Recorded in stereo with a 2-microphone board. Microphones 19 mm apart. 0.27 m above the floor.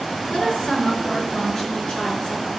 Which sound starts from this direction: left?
A woman speaking, at 0.3 s.